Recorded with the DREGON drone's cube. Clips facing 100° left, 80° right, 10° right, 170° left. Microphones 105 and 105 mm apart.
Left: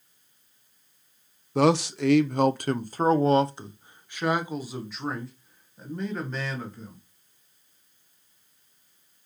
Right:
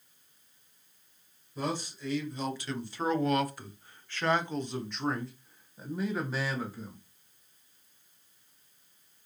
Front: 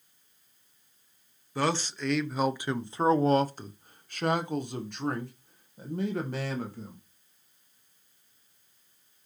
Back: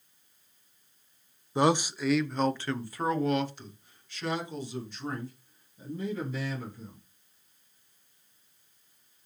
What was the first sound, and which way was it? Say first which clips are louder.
A man speaking: left 13 dB, back 4 dB; 100° left.